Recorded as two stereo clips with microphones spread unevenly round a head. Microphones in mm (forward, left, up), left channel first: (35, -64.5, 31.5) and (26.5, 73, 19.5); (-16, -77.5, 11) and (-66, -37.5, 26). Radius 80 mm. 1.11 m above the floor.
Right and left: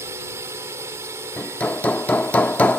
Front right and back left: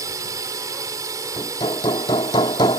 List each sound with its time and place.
0.0 s a drone: 165° left
1.4 s hammering: 10° right